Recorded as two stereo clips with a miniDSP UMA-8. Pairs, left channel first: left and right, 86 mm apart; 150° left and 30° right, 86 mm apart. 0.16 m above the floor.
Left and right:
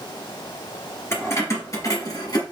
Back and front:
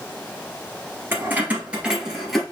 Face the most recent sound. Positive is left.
turn(degrees=60)